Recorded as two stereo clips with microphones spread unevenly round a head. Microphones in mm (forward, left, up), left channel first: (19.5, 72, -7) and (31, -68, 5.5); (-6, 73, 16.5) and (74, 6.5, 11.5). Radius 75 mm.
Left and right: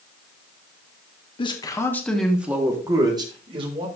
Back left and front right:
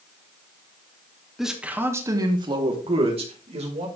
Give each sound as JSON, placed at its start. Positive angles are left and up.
{"t": 1.4, "sound": "a man speaking", "azimuth_deg": 45, "distance_m": 2.0}